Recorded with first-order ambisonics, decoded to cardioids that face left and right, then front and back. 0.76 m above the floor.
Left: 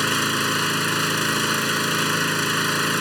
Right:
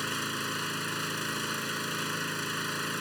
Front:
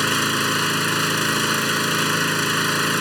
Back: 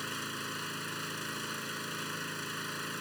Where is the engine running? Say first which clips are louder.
Left 11 dB, front 18 dB; 35° left.